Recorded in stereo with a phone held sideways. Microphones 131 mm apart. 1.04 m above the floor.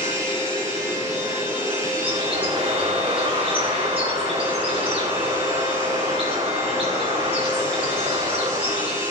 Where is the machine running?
25° right (ahead or behind), 6 m.